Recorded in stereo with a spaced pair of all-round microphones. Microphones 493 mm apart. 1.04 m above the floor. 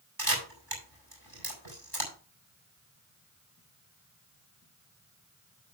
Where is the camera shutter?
45° right (ahead or behind), 4.5 m.